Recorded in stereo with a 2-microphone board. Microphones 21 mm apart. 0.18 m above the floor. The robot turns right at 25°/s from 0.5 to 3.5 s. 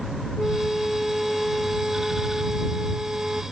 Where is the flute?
160° left; by 3.4 s 130° right.